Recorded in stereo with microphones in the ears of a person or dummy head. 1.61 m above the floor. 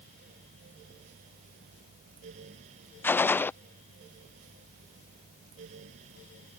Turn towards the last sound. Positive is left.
turn(degrees=10)  # may be behind; listen again after turning